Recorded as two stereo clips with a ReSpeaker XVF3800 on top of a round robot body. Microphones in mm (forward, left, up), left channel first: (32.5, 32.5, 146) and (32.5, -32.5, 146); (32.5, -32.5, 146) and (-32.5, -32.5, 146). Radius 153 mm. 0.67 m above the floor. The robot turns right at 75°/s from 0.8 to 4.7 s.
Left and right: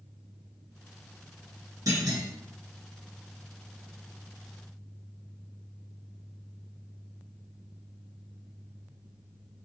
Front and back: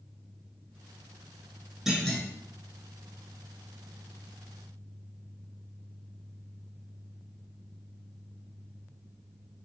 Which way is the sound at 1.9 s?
95° right.